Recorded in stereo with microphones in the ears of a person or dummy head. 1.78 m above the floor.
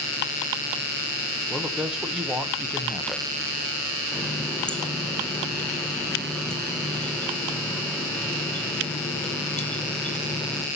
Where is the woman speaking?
5° right (ahead or behind), 1.2 m.